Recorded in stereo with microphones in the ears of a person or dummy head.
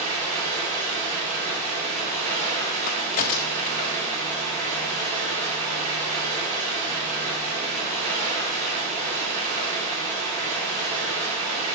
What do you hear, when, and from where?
0.0 s running water: 40° right (ahead or behind), 3.5 m
2.9 s a crack: 40° left (ahead or behind), 0.6 m